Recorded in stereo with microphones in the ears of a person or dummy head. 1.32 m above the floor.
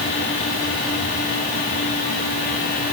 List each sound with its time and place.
Only background noise.